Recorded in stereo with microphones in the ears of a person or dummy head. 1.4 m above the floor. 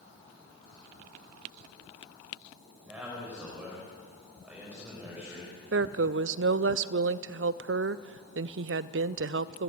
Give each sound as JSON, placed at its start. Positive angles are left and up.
{"t": 2.9, "sound": "a man speaking", "side_deg": -5, "distance_m": 5.5}
{"t": 5.7, "sound": "a woman speaking", "side_deg": -60, "distance_m": 0.6}